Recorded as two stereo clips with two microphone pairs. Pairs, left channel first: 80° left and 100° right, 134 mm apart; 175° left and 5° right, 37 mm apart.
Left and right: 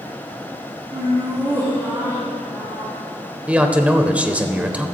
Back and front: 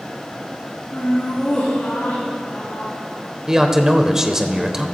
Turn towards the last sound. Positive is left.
turn(degrees=-40)